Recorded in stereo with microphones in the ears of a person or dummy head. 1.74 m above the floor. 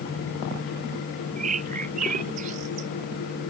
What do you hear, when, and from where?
1.4 s a bird: 45° right (ahead or behind)